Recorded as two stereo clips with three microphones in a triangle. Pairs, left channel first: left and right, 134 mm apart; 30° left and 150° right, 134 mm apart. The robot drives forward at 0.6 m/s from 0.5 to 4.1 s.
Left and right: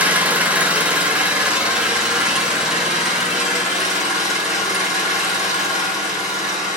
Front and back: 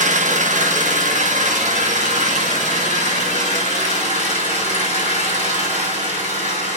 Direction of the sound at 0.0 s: 170° right.